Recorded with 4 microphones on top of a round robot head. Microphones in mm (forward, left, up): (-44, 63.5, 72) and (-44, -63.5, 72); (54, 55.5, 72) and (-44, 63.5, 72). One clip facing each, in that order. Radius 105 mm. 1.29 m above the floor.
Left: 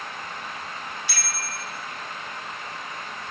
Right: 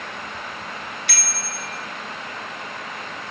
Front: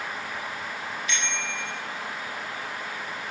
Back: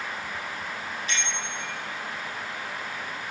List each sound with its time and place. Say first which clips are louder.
1.1 s a bicycle bell: right 2 dB, front 1 dB; 120° right, 3.5 m